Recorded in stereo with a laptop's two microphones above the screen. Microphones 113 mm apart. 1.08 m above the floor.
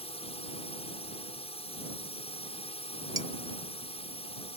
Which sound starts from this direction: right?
Dishes clattering, at 3.2 s.